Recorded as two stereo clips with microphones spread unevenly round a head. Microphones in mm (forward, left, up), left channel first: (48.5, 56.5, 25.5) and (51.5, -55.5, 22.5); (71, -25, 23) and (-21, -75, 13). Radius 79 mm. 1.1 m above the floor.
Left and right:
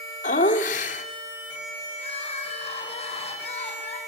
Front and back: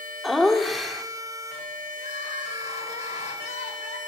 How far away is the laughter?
About 3 m.